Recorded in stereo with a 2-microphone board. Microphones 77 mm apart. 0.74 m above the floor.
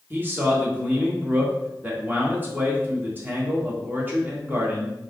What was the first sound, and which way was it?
A man speaking, 25° right (ahead or behind).